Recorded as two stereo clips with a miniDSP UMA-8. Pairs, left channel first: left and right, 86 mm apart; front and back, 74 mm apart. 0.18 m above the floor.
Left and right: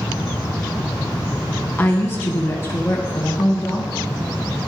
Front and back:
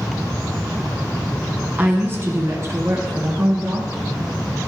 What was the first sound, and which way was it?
A woman speaking, 135° left.